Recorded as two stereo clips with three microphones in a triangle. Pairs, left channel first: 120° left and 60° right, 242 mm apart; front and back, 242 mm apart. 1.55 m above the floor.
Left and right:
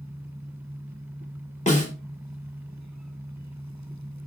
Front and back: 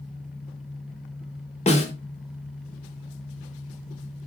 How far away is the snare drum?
About 0.8 m.